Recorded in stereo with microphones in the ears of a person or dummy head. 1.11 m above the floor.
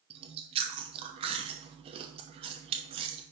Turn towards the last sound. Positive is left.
turn(degrees=-30)  # may be behind; listen again after turning